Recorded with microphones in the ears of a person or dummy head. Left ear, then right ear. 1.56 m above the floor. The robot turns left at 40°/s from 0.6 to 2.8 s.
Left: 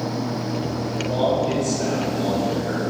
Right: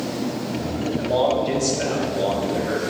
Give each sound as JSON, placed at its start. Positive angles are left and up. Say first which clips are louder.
{"t": 1.0, "sound": "a man speaking", "louder": "right 1 dB", "azimuth_deg": -15, "distance_m": 3.0}